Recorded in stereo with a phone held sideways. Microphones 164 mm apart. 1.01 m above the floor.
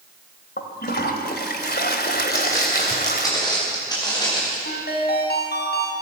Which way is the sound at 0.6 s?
80° left.